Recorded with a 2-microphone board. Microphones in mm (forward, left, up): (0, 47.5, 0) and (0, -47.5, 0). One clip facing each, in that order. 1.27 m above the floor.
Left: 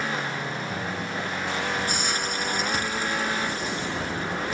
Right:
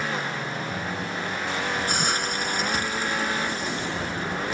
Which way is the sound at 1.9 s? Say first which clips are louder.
Right 2 dB; 50° right (ahead or behind).